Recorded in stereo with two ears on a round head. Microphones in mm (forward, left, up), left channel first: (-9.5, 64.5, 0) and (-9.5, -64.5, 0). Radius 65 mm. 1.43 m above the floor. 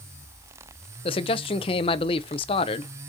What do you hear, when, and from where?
1.1 s a man speaking: 40° left (ahead or behind), 0.6 m